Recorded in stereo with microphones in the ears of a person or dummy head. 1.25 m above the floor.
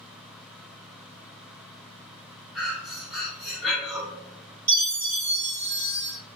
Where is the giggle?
No giggle in this recording.